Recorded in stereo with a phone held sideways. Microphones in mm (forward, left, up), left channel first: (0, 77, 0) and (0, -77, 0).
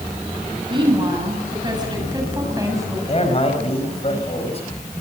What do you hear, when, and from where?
0.7 s a woman speaking: 30° right (ahead or behind), 8 m; by 3.0 s 20° right (ahead or behind), 6.5 m
3.1 s a man speaking: 40° left (ahead or behind), 5 m